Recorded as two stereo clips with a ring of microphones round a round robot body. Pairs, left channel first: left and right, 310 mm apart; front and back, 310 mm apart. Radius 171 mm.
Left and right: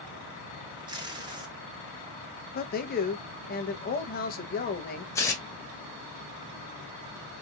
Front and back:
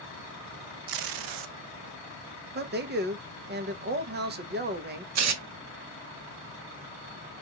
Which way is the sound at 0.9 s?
165° right.